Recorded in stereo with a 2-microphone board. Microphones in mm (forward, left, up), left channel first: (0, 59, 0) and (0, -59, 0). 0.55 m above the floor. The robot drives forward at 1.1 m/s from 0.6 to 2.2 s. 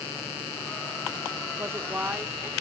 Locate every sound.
1.6 s a woman speaking: 25° right (ahead or behind), 0.7 m; by 2.5 s 15° right (ahead or behind), 1.2 m